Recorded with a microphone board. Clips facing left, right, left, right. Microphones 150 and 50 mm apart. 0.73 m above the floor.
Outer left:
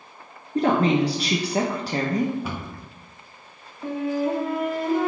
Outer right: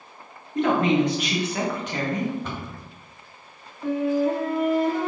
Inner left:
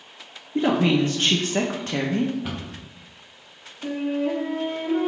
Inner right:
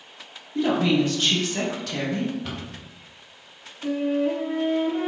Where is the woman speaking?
35° left (ahead or behind), 0.5 m.